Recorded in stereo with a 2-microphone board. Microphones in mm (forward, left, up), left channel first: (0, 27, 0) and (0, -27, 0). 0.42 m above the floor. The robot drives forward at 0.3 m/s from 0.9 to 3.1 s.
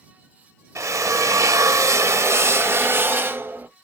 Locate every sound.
0.8 s a drill: 70° right (ahead or behind), 0.5 m; by 3.7 s 45° right (ahead or behind), 0.7 m